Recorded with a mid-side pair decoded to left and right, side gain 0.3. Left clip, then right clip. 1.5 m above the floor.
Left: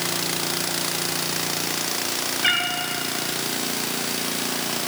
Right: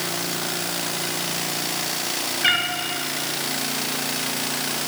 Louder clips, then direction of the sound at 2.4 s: Right 1 dB; 15° right.